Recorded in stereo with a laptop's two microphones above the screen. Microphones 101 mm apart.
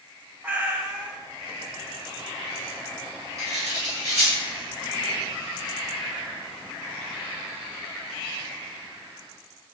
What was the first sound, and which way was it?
A cat meowing, 15° right (ahead or behind).